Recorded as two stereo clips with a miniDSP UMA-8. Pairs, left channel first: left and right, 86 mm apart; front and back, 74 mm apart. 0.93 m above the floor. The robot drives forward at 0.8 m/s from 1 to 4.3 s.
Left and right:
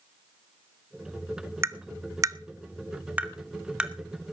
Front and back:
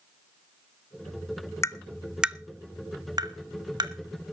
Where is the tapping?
40° right, 0.6 m; by 3.9 s 170° right, 1.5 m.